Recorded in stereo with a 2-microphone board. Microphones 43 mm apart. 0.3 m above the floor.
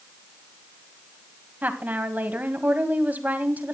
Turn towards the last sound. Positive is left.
turn(degrees=-40)  # may be behind; listen again after turning